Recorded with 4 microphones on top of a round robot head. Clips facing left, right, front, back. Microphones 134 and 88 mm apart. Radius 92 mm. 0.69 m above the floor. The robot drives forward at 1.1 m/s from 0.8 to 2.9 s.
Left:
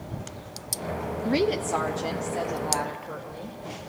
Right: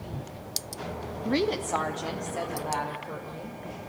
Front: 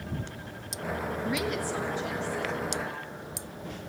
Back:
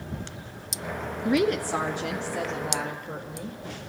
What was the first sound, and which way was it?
A woman speaking, 170° left.